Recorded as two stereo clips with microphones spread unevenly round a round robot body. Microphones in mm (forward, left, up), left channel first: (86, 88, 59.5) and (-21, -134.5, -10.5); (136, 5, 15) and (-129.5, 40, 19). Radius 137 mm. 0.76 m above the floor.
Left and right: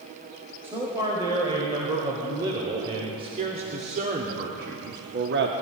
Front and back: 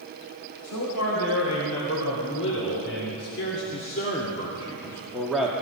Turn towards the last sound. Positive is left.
turn(degrees=-105)